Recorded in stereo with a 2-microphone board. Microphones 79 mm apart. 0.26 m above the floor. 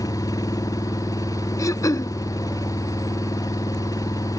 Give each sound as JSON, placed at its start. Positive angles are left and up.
{"t": 0.0, "sound": "an engine running", "side_deg": 50}
{"t": 1.6, "sound": "throat clearing", "side_deg": 45}